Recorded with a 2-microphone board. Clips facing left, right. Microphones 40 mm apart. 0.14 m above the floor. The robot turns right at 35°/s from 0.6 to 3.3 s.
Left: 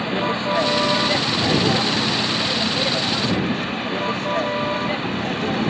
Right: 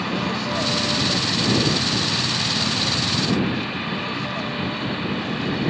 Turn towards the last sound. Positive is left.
turn(degrees=55)  # may be behind; listen again after turning